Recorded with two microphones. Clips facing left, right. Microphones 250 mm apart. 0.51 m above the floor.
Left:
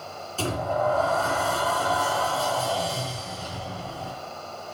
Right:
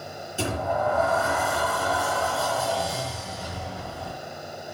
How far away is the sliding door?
About 3 m.